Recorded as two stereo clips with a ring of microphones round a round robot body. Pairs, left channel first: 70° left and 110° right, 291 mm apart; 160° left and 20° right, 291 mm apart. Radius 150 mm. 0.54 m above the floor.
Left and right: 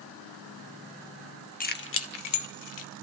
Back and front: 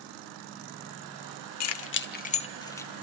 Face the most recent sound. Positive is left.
turn(degrees=75)